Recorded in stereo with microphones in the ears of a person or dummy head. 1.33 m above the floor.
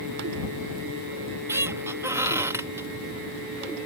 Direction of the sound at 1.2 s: 15° right (ahead or behind).